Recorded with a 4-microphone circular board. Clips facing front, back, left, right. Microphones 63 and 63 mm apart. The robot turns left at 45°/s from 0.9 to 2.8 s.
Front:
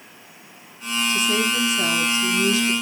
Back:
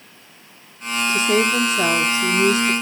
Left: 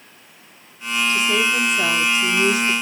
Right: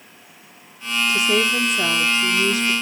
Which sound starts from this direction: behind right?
A woman speaking, at 1.1 s.